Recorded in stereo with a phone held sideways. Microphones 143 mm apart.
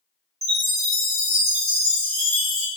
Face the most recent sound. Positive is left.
turn(degrees=-50)  # may be behind; listen again after turning